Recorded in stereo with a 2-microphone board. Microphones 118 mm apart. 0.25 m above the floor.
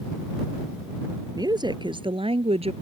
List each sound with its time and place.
1.4 s a woman speaking: 35° right (ahead or behind); by 2.7 s 60° right (ahead or behind)